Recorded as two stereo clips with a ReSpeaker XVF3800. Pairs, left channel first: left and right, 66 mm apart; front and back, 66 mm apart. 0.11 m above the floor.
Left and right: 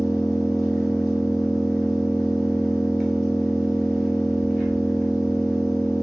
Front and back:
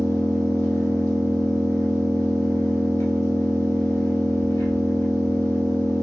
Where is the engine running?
5° left, 1.8 m.